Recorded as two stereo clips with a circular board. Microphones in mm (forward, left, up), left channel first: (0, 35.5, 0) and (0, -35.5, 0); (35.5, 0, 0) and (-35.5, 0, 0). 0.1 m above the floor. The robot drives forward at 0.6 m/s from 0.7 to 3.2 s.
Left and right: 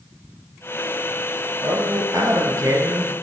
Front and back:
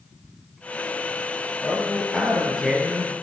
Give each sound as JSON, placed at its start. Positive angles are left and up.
{"t": 1.6, "sound": "a man speaking", "azimuth_deg": -65, "distance_m": 1.8}